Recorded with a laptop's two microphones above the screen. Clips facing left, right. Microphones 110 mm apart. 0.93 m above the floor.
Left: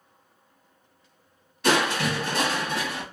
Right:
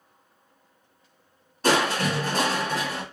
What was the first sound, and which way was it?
Crushing, 35° right (ahead or behind).